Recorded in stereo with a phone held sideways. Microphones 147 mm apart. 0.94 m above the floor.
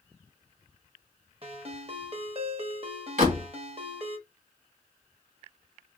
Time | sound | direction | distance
1.4 | a ringtone | 40° right (ahead or behind) | 0.8 m
3.2 | a door slam | 65° right (ahead or behind) | 1.9 m